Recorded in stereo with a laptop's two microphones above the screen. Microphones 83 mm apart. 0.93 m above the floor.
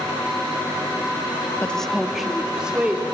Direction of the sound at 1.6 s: 15° left (ahead or behind).